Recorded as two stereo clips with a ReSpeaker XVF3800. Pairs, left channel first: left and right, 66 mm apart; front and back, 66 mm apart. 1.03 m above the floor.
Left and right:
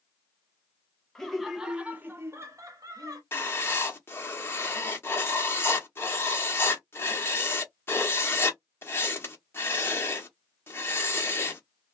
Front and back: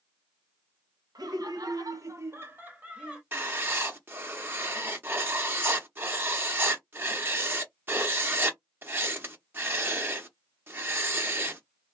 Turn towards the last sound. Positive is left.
turn(degrees=135)